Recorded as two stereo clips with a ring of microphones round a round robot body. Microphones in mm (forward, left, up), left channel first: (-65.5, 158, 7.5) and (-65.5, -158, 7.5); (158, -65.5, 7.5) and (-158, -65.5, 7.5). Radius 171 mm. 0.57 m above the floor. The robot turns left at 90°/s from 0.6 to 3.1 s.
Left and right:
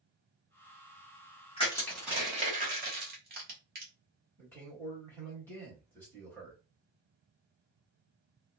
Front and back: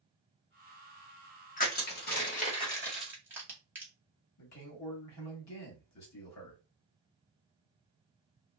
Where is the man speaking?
5° left, 1.2 m.